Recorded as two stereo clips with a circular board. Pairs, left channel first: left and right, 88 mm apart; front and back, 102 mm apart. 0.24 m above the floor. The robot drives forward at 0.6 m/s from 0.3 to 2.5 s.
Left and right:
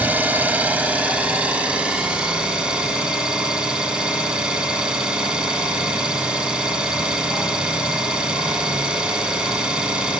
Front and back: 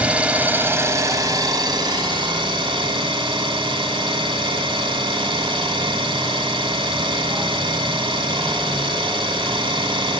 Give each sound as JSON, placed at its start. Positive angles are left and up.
{"t": 0.0, "sound": "an engine running", "azimuth_deg": -125, "distance_m": 1.1}